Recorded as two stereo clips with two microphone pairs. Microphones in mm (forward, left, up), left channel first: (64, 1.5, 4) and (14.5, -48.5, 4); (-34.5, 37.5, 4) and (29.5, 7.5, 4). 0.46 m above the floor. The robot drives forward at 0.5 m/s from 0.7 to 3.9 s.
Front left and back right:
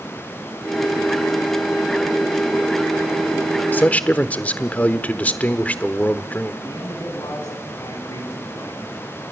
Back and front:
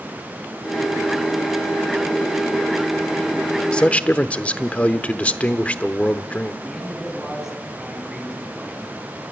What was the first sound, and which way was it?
A man speaking, 85° left.